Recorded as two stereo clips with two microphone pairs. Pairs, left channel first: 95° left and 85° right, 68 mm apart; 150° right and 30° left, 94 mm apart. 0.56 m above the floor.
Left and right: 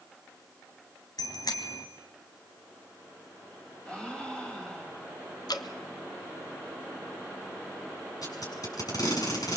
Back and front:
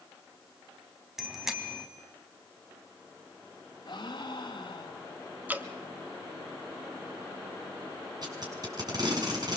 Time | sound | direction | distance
1.2 | a bicycle bell | 110° left | 3 m
3.9 | a gasp | 170° left | 3.5 m
5.5 | dripping | 95° left | 1.3 m
8.2 | tape being pulled | 70° left | 7 m